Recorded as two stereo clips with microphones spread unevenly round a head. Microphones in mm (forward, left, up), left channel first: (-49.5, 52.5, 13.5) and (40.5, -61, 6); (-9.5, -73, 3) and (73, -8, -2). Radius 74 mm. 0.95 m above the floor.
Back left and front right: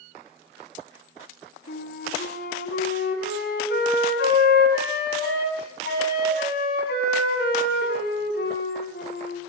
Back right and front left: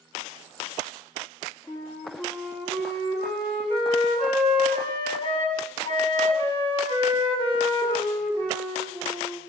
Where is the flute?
155° left, 8.5 m.